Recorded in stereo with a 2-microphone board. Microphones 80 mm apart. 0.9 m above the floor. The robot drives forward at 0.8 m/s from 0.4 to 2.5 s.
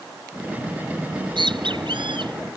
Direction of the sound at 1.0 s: 75° right (ahead or behind).